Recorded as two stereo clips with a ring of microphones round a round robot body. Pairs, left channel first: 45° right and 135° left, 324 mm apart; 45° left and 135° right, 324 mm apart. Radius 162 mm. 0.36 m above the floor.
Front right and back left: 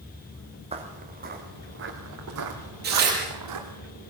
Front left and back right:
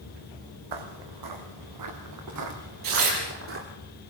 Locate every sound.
0.7 s footsteps: 150° right, 3 m; by 3.6 s 170° left, 4.5 m
2.8 s tearing paper: 165° right, 7 m